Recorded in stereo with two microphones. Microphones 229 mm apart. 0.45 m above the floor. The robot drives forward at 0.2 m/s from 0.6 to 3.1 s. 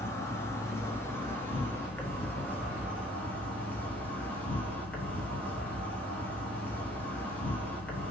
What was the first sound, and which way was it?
An insect, 10° left (ahead or behind).